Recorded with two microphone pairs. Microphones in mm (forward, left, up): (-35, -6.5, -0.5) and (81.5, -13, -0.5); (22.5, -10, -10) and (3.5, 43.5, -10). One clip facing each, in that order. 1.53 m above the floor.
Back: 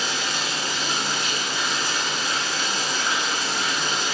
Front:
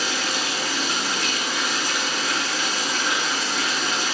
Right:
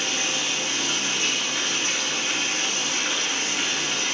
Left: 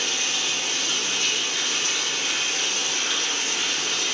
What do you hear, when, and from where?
0.0 s running water: 5° right, 3 m